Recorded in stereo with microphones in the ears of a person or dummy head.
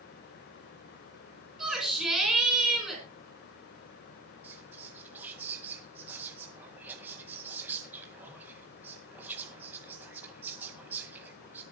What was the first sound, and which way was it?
A shout, centre (ahead or behind).